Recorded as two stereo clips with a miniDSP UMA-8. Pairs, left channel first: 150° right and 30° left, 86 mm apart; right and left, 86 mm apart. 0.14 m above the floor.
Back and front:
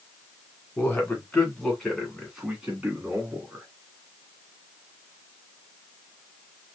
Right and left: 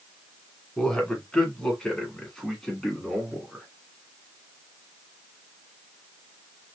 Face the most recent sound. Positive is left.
turn(degrees=-5)